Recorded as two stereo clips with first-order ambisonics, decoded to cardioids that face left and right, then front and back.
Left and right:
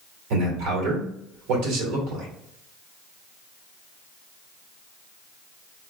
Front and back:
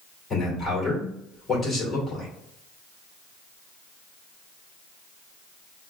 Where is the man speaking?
80° right, 2 m.